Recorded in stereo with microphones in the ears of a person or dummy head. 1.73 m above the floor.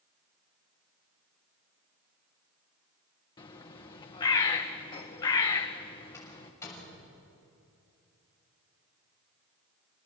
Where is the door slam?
15° left (ahead or behind), 7 m.